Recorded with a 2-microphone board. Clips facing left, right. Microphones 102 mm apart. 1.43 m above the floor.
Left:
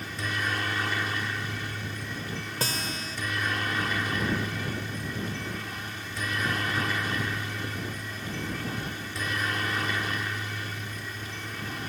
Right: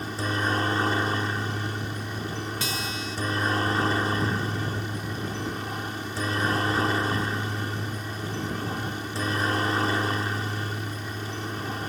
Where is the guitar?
40° left (ahead or behind).